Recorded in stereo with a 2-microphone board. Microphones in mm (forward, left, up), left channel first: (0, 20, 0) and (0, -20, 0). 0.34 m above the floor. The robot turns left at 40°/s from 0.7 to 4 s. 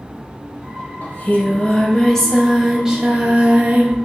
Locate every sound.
1.0 s singing: 60° left, 0.7 m; by 4.0 s 55° right, 0.7 m